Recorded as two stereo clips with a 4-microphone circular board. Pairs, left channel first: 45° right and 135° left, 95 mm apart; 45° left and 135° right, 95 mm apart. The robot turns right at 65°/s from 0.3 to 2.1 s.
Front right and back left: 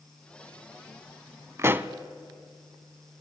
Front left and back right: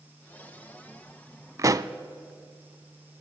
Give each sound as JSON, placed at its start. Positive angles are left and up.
{"t": 1.6, "sound": "a pop", "azimuth_deg": -175, "distance_m": 0.5}